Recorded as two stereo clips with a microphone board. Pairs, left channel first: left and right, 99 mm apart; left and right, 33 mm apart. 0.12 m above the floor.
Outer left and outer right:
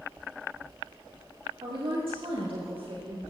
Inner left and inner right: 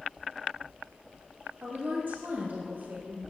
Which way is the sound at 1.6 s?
65° right (ahead or behind).